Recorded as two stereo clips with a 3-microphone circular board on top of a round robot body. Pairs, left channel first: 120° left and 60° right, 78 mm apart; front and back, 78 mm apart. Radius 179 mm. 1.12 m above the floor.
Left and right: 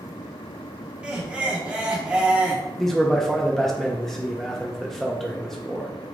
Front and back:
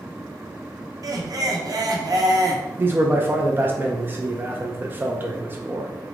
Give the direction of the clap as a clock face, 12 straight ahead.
No clap in this recording.